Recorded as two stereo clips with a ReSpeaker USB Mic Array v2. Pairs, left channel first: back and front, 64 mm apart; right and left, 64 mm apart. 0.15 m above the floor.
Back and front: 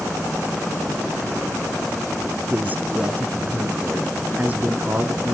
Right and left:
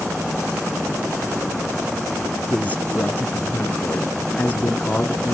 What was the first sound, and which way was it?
A man speaking, 45° right.